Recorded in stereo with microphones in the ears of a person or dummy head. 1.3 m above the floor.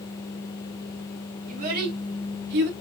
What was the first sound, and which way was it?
A child speaking, 50° right (ahead or behind).